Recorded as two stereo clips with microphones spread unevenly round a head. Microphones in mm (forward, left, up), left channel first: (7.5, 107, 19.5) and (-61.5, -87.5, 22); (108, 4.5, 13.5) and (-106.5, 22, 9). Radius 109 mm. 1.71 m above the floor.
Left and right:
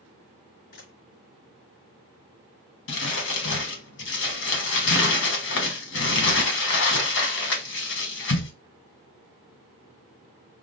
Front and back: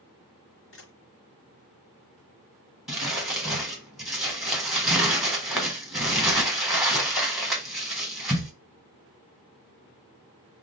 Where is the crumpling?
85° left, 1.1 m.